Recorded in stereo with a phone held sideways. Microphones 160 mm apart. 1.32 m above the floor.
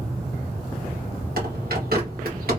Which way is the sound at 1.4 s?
70° right (ahead or behind).